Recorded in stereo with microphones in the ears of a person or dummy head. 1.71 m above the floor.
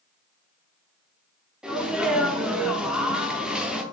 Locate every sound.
1.6 s a sneeze: 5° right (ahead or behind), 0.6 m